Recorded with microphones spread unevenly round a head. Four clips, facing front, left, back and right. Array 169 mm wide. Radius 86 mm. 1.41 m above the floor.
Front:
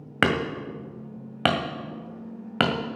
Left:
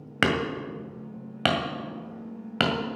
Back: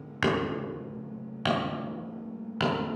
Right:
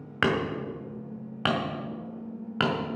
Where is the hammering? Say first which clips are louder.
Left 1 dB, front 3 dB; 15° left, 1.8 m.